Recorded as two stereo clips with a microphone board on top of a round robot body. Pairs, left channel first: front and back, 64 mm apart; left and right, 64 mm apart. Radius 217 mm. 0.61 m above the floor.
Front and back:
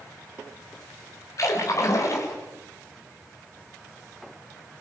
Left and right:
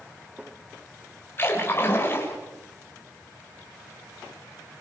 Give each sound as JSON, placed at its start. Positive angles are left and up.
{"t": 1.4, "sound": "a splash", "azimuth_deg": 35, "distance_m": 5.0}